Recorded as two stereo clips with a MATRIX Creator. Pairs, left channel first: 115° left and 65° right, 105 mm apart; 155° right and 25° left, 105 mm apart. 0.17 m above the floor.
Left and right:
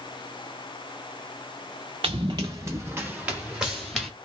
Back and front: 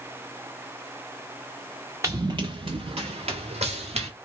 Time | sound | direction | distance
2.0 | running footsteps | 40° right | 0.7 m